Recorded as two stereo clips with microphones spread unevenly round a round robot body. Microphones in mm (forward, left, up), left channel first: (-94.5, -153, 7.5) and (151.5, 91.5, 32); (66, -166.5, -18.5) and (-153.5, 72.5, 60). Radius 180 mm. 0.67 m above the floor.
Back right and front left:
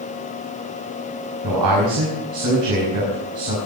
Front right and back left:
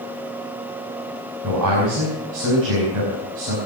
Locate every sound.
1.4 s a man speaking: 90° left, 5.5 m